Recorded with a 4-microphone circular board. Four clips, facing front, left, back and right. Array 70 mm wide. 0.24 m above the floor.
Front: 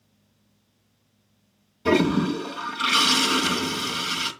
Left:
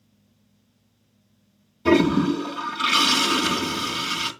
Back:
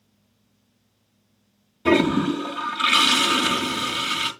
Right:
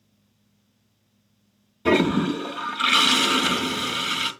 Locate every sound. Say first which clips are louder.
1.9 s a toilet flushing: left 2 dB, back 2 dB; 130° right, 1.5 m